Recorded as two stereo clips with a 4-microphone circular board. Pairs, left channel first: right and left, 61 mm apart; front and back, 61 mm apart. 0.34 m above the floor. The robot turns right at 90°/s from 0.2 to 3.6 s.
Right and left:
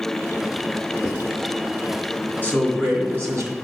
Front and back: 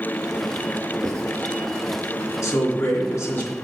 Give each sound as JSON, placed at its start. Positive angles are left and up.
{"t": 1.0, "sound": "writing", "azimuth_deg": -175, "distance_m": 2.5}
{"t": 2.4, "sound": "a man speaking", "azimuth_deg": -35, "distance_m": 2.5}